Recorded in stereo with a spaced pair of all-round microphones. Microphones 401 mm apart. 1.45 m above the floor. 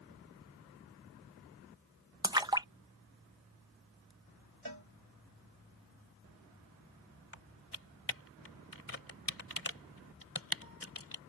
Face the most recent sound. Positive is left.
turn(degrees=35)  # may be behind; listen again after turning